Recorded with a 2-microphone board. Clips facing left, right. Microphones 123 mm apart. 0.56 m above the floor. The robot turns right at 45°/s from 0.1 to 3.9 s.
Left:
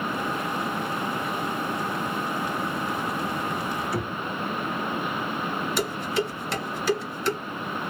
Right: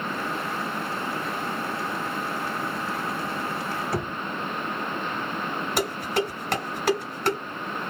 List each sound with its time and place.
3.9 s knocking: 50° right (ahead or behind), 1.9 m
5.8 s dishes clattering: 60° right (ahead or behind), 1.9 m